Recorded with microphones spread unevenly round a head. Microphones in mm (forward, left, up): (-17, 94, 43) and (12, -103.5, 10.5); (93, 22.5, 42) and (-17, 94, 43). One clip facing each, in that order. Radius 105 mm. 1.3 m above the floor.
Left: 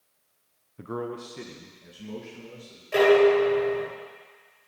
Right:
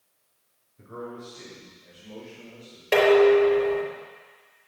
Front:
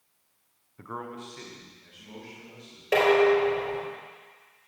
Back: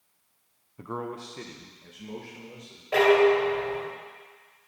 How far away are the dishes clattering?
About 3.5 m.